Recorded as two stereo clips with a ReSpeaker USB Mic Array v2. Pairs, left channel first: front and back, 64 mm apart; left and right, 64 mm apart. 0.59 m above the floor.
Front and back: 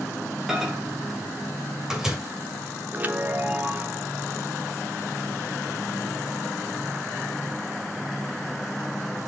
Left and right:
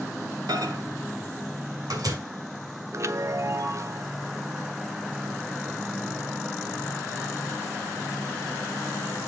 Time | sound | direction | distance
0.5 | a microwave | 100° right | 1.8 m
2.9 | a chime | 120° right | 0.9 m